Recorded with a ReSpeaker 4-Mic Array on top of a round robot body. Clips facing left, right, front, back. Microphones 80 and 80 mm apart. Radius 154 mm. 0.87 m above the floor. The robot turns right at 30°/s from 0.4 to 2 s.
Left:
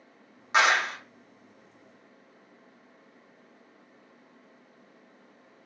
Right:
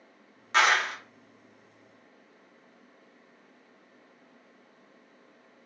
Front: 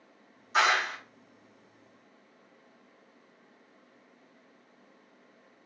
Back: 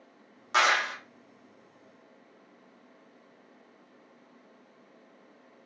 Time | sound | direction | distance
0.5 | a clap | 165° left | 1.3 m